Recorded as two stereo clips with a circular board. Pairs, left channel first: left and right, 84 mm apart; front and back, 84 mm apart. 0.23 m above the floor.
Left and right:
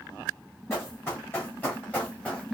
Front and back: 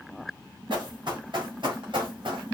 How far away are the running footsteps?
About 2.5 m.